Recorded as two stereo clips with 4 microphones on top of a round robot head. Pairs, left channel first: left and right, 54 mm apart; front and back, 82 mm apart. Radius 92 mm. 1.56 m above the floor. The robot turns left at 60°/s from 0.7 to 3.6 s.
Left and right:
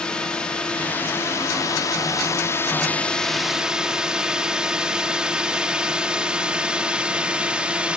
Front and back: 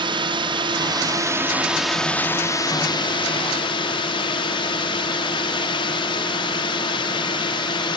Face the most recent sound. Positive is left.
turn(degrees=-20)